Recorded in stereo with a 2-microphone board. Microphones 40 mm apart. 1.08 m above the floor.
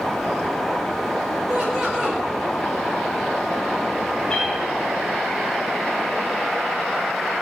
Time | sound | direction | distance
1.5 | laughter | 15° right (ahead or behind) | 5.5 m
4.3 | a cat meowing | 20° left (ahead or behind) | 4.5 m